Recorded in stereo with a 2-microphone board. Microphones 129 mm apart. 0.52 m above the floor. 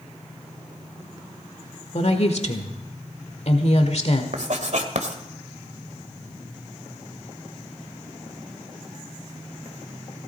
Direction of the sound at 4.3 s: 70° right (ahead or behind).